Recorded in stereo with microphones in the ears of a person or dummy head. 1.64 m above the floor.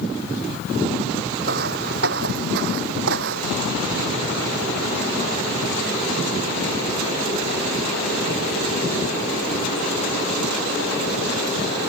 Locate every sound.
1.4 s footsteps: 55° right (ahead or behind); by 3.6 s 65° right (ahead or behind)